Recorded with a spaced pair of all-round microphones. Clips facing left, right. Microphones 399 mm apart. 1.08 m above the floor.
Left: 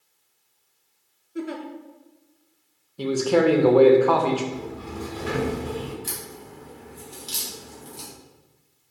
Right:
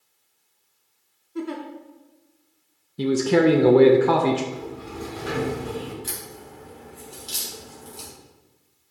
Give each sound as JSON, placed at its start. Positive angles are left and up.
{"t": 1.4, "sound": "a giggle", "side_deg": -10, "distance_m": 0.8}
{"t": 3.0, "sound": "a man speaking", "side_deg": -35, "distance_m": 0.5}
{"t": 4.5, "sound": "a sliding door", "side_deg": 55, "distance_m": 2.5}
{"t": 6.0, "sound": "a crack", "side_deg": 15, "distance_m": 1.9}